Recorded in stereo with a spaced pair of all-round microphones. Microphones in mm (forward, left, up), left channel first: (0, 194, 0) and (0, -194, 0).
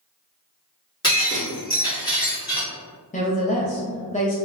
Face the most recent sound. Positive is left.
turn(degrees=20)  # may be behind; listen again after turning